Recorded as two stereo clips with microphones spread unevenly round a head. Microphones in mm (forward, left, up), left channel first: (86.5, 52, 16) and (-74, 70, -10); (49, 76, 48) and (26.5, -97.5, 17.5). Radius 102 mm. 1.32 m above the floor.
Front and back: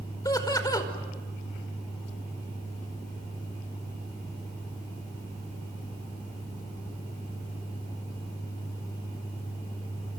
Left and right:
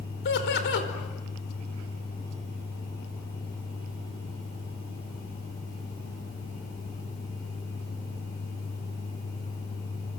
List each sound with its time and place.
0.2 s laughter: 60° left, 5 m